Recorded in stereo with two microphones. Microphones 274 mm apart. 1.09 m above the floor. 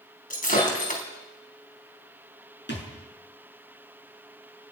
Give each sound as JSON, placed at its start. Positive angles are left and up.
{"t": 0.3, "sound": "breaking glass", "side_deg": 30, "distance_m": 4.5}
{"t": 2.7, "sound": "a thud", "side_deg": 40, "distance_m": 6.0}